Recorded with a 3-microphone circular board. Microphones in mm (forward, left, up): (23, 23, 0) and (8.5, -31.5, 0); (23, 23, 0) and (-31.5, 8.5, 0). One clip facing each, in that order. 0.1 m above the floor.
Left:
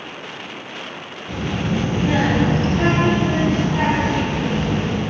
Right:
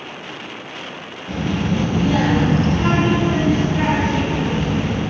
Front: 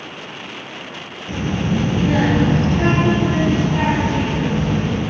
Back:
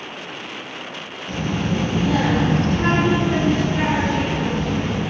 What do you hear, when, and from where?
1.3 s a child speaking: 15° right, 0.8 m; by 5.0 s 60° left, 2 m